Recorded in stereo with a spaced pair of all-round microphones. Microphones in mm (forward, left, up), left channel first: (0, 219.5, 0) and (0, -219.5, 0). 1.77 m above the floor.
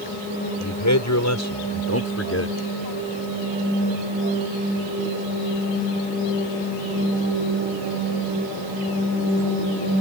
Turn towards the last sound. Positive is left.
turn(degrees=30)  # may be behind; listen again after turning